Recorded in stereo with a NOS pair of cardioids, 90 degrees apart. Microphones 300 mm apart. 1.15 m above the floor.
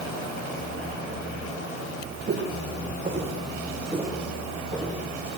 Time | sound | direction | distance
2.3 | footsteps | 40° right | 3.5 m